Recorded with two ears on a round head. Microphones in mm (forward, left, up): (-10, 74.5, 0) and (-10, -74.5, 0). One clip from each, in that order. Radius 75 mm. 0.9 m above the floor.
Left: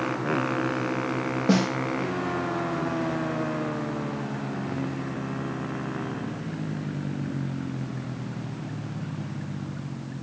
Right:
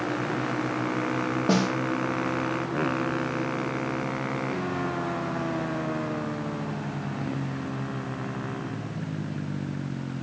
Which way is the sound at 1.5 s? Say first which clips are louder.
Left 1 dB; 5° right (ahead or behind).